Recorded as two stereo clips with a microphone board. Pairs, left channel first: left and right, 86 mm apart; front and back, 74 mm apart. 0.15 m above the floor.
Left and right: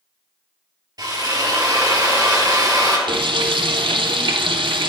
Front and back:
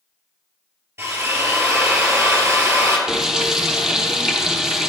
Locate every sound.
1.0 s a drill: 130° right, 1.2 m
3.1 s frying: 95° right, 0.6 m